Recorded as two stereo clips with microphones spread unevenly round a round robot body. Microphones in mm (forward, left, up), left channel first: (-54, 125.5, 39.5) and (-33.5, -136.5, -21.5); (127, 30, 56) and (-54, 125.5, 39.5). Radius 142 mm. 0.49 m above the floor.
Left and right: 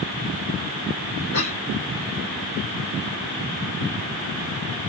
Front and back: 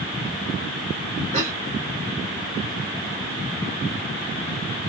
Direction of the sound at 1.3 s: 100° left.